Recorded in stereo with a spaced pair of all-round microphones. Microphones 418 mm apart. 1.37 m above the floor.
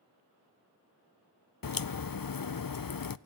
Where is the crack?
55° left (ahead or behind), 0.5 m.